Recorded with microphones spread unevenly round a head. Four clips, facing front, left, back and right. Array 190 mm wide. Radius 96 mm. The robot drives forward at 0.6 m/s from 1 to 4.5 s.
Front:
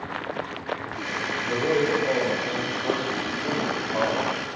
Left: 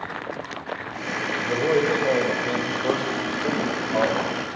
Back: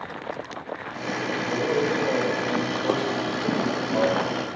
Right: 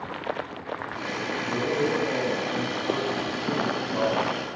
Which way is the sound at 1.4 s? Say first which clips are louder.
Left 5 dB, front 1 dB; 75° left.